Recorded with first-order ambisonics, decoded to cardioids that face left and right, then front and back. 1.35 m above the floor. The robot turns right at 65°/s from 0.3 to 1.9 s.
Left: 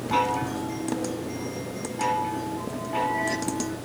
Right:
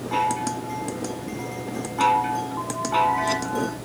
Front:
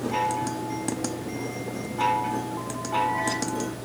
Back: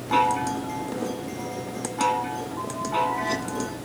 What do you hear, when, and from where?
0.1 s a chime: 160° left, 2 m; by 3.8 s 100° right, 2 m